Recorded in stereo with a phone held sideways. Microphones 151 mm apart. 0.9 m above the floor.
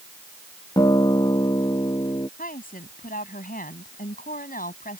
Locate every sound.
0.8 s a guitar: 30° left (ahead or behind)
2.4 s a woman speaking: 70° left (ahead or behind)